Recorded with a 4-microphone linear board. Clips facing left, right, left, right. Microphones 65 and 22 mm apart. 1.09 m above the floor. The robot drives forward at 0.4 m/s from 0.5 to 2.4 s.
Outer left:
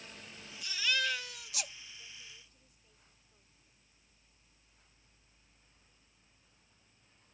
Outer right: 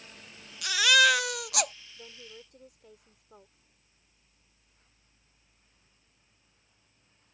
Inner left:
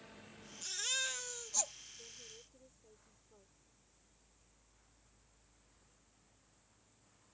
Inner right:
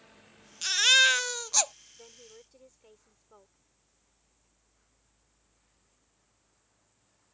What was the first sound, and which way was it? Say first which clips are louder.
A baby crying: outer right 12 dB, inner right 17 dB; 70° right (ahead or behind).